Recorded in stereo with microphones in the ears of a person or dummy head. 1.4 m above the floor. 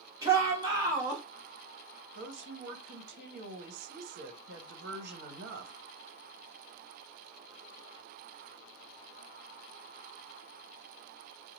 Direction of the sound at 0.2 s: 15° right (ahead or behind).